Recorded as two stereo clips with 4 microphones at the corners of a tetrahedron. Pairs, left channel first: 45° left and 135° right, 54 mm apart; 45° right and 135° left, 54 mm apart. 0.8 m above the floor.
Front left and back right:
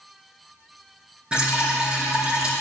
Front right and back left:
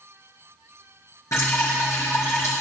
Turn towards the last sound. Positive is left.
turn(degrees=-65)